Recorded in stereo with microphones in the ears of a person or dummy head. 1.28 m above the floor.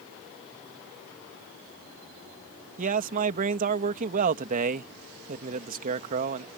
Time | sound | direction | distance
2.8 | a man speaking | 40° right (ahead or behind) | ?